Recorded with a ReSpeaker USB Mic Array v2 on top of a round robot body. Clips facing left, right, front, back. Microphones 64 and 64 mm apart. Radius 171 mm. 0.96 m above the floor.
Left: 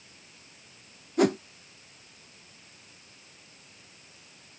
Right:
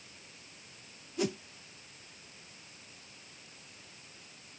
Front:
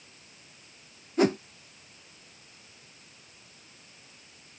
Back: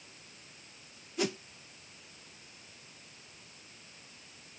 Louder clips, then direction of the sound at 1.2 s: Left 10 dB, front 10 dB; 55° left.